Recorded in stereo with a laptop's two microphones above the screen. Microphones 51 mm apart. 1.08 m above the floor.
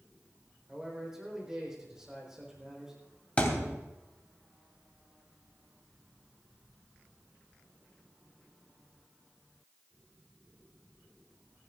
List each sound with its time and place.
0.7 s a man speaking: 10° right (ahead or behind), 4 m
3.4 s a thud: 25° left (ahead or behind), 3 m